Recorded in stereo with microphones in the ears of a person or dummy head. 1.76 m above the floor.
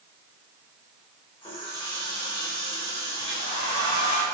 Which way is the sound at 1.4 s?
20° left (ahead or behind).